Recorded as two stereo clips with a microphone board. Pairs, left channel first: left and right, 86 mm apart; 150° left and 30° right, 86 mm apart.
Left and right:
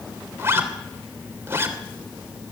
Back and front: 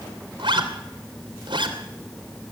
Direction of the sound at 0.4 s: 30° right.